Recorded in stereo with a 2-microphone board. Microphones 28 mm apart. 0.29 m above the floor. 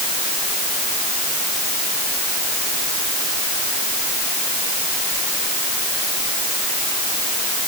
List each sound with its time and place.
Only background noise.